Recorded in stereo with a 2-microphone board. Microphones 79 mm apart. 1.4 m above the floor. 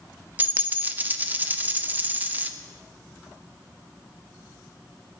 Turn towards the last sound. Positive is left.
turn(degrees=-25)  # may be behind; listen again after turning